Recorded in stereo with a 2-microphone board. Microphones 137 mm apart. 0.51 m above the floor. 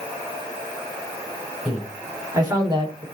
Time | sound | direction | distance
1.6 | a man speaking | 5° right (ahead or behind) | 2.5 m